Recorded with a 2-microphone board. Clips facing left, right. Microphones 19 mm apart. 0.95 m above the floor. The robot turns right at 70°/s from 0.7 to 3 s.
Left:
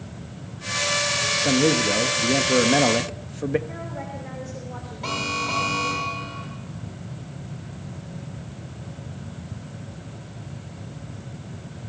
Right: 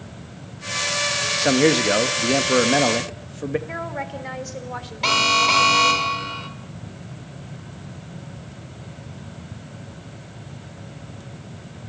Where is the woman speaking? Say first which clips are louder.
Right 5 dB; 65° right (ahead or behind), 3.5 m.